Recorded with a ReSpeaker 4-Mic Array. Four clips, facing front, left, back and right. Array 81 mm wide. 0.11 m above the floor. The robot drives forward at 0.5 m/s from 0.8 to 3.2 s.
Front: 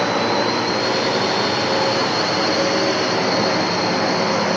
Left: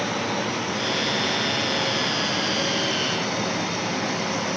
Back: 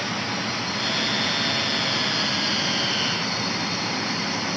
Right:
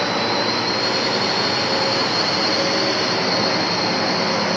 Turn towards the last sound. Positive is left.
turn(degrees=-25)